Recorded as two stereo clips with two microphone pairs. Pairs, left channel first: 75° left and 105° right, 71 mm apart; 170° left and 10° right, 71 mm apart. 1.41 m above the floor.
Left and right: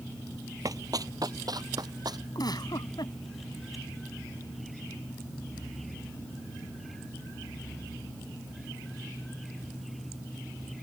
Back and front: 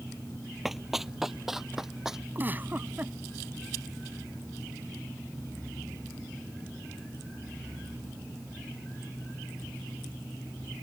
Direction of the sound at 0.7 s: 95° right.